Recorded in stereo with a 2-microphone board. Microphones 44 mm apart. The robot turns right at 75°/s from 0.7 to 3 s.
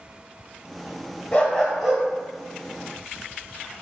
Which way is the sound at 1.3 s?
155° left.